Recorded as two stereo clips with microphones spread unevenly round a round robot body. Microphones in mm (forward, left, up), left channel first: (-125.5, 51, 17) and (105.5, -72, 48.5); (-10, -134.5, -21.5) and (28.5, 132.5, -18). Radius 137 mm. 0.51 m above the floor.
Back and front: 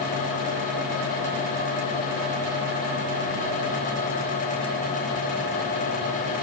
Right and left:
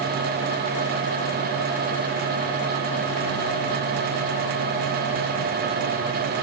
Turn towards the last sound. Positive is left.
No sound to turn to.